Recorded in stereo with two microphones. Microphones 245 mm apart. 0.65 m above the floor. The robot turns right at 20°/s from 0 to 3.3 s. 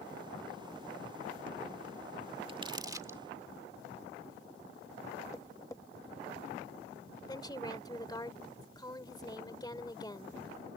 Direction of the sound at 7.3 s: 15° left (ahead or behind).